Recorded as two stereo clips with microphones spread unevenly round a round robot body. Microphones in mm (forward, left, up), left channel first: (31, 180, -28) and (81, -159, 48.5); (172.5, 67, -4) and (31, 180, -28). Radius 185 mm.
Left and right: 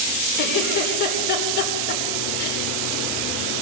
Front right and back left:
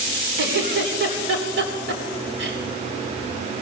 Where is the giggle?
160° left, 3 m.